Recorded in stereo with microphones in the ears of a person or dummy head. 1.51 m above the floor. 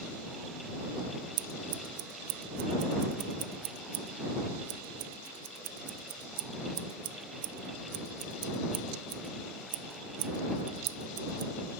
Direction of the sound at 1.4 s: 60° right (ahead or behind).